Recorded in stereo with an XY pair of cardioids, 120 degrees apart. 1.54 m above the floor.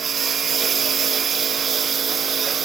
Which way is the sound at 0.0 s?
40° right.